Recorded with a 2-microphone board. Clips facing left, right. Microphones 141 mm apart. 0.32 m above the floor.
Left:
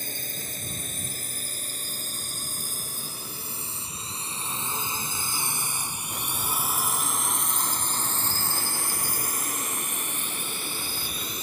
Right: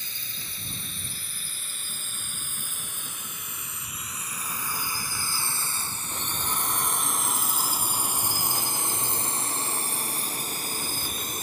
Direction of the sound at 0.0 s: 45° left (ahead or behind).